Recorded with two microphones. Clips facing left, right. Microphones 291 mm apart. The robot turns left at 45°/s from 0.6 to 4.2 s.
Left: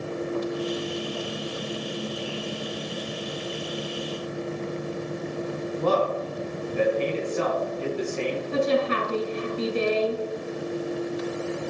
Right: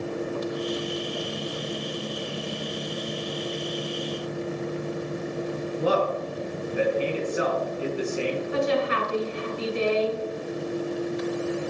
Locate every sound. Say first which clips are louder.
5.8 s a man speaking: even; 10° right (ahead or behind), 1.5 m
8.5 s a woman speaking: left 3 dB; 45° left (ahead or behind), 2.5 m